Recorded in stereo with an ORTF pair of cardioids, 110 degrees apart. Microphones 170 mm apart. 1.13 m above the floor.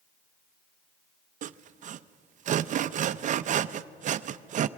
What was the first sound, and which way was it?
Sawing, 50° right.